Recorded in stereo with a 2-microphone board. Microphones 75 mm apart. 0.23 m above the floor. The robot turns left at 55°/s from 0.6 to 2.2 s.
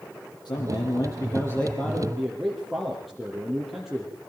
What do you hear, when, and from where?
0.5 s a man speaking: 85° left, 7 m; by 4.1 s 5° right, 7 m